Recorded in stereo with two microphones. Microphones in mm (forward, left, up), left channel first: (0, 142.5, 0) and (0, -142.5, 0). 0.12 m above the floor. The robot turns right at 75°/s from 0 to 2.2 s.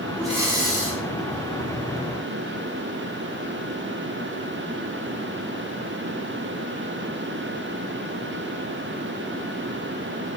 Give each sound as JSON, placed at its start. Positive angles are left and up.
{"t": 0.2, "sound": "breathing", "azimuth_deg": 175, "distance_m": 3.5}